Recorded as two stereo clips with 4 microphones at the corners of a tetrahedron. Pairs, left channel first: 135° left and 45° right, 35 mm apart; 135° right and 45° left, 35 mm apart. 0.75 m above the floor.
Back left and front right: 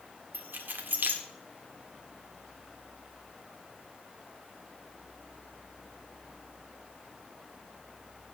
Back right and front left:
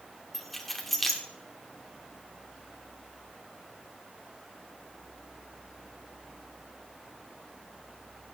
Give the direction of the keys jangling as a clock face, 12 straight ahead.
2 o'clock.